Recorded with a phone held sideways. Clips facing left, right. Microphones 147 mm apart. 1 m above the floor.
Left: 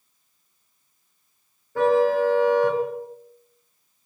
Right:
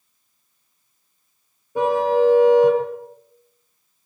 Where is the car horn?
20° right (ahead or behind), 6 m.